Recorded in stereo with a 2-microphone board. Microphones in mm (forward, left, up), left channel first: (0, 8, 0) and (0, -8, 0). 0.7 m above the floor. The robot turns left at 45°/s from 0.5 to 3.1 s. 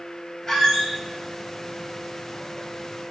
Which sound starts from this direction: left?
A squeak, at 0.5 s.